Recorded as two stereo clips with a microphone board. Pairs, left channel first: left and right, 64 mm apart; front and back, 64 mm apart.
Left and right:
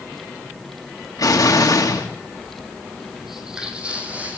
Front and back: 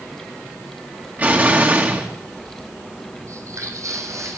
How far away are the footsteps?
About 2.5 m.